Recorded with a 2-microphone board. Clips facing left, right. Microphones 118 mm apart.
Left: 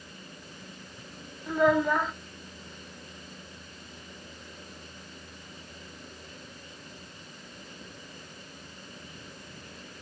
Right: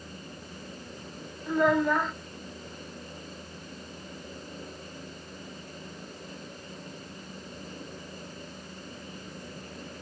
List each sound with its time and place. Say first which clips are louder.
1.5 s a child speaking: even; centre (ahead or behind), 0.7 m